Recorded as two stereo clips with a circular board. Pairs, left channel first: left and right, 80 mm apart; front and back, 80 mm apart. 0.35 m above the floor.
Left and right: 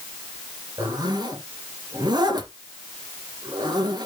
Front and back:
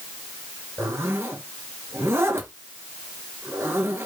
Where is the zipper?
120° right, 2 m.